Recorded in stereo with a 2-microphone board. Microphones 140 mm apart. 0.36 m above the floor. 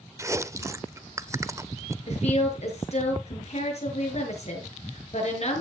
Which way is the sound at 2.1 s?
50° left (ahead or behind).